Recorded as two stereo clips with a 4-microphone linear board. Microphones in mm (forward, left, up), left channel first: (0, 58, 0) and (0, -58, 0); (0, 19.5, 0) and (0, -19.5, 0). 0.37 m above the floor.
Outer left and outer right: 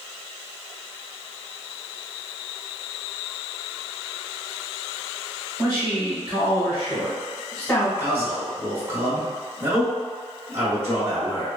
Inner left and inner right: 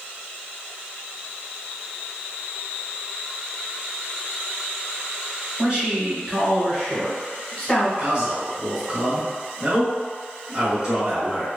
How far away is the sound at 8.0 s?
About 0.8 m.